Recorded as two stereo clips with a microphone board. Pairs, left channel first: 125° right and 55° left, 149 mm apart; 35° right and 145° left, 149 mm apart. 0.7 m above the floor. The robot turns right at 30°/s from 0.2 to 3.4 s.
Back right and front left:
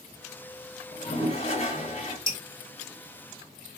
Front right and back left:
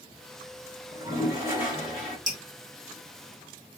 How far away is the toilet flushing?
About 1.7 m.